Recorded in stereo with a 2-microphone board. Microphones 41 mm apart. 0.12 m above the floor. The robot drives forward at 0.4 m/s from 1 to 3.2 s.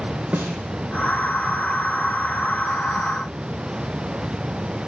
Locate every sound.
0.3 s a snare drum: 45° right (ahead or behind), 1.4 m